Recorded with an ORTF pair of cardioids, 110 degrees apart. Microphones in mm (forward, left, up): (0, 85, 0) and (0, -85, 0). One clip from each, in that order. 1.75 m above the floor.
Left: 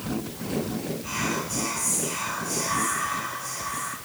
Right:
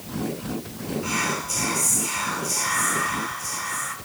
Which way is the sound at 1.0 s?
65° right.